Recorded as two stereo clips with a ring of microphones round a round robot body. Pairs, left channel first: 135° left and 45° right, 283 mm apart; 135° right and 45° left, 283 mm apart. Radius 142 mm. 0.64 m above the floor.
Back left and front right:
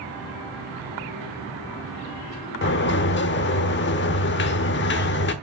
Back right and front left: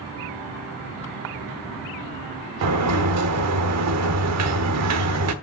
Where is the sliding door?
80° left, 1.0 m.